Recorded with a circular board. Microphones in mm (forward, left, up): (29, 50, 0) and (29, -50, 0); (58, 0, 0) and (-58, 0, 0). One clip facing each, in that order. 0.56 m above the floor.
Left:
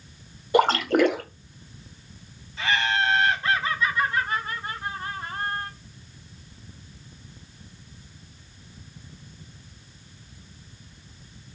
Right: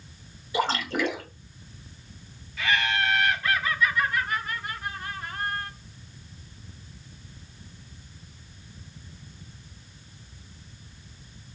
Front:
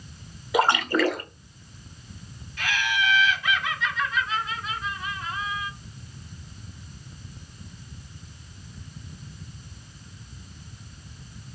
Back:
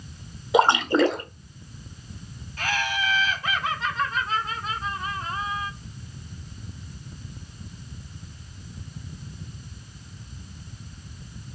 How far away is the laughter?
About 1.6 m.